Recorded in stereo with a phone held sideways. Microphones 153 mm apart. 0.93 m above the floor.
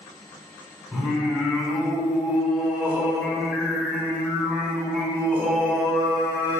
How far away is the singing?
About 1.3 m.